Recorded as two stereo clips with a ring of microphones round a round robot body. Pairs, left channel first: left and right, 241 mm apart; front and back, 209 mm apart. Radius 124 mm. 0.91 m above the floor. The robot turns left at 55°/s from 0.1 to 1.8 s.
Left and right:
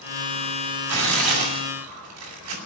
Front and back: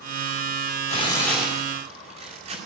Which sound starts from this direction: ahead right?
Tearing paper, at 0.9 s.